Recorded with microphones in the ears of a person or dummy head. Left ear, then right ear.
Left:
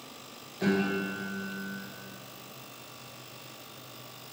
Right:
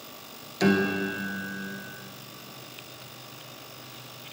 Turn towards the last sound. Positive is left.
turn(degrees=-75)  # may be behind; listen again after turning